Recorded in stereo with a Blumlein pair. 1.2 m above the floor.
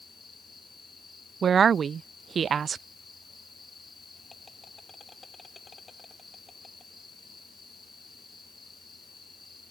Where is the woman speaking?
20° right.